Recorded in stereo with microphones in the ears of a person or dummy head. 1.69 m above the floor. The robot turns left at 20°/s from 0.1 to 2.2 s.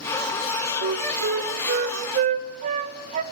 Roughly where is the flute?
Right.